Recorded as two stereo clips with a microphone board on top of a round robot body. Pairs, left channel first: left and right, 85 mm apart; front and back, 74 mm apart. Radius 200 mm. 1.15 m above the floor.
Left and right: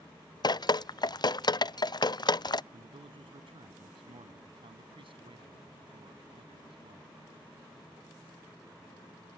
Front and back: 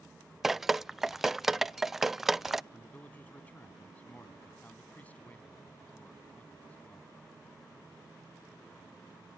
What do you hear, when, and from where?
0.4 s dripping: 95° left
2.7 s a man speaking: 70° right